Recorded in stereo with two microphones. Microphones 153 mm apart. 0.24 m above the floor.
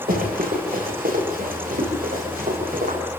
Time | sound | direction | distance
0.1 | running footsteps | 85° right | 10 m